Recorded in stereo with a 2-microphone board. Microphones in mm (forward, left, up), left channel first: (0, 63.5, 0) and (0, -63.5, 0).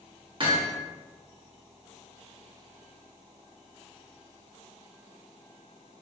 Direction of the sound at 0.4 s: 40° right (ahead or behind).